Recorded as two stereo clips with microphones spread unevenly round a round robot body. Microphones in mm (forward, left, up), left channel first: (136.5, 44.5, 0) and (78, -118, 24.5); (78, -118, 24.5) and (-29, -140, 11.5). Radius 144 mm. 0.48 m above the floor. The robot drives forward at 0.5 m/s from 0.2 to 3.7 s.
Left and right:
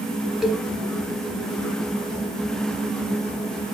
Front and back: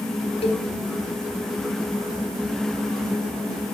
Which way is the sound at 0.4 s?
20° right.